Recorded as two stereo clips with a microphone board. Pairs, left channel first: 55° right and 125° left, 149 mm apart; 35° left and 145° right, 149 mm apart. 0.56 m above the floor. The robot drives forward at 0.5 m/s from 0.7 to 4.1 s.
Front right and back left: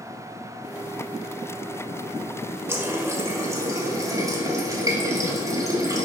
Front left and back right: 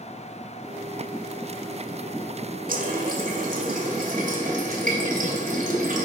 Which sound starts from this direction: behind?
A running tap, at 2.7 s.